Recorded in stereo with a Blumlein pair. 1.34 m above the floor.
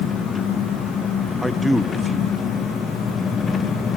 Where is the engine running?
15° left, 1.1 m.